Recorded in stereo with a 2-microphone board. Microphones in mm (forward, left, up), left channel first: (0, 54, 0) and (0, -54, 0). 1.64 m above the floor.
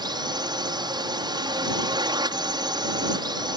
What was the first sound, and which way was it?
A drone, 40° right (ahead or behind).